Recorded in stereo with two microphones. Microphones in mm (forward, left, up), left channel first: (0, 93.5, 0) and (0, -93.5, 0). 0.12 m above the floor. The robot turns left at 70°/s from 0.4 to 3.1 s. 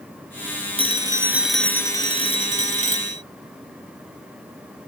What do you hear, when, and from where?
0.8 s a phone ringing: 130° right; by 3.2 s 70° left